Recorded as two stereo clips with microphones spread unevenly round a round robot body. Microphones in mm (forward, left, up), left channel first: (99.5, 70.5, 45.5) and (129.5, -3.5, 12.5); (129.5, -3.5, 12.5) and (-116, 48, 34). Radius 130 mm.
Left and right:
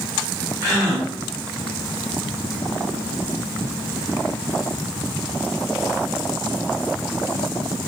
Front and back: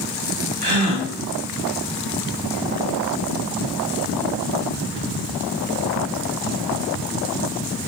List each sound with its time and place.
0.6 s a gasp: 135° right, 1.8 m